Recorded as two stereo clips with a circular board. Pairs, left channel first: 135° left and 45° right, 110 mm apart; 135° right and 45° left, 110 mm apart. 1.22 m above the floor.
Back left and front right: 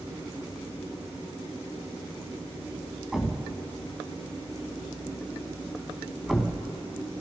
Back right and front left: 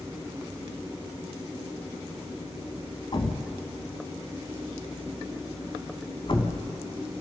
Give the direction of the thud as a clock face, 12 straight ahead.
4 o'clock.